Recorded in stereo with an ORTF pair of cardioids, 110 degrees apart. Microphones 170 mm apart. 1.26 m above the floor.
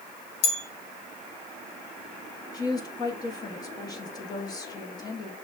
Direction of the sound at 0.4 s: 65° left.